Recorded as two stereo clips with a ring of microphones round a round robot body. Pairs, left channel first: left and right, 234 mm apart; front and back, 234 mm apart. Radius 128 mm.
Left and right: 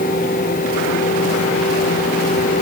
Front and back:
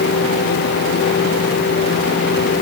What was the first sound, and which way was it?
Only background noise.